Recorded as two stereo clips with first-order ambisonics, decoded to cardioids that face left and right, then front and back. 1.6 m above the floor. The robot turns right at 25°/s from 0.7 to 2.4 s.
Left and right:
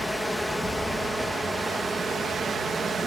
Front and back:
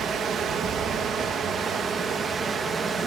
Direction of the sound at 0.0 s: Straight behind.